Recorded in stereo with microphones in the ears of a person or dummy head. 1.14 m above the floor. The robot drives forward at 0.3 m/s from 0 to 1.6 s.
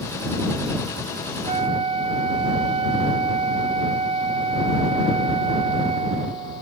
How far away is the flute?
About 0.5 m.